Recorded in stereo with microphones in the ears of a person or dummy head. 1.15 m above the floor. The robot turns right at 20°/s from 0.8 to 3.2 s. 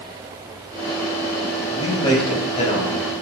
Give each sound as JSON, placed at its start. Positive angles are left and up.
{"t": 1.7, "sound": "a man speaking", "side_deg": 25, "distance_m": 5.0}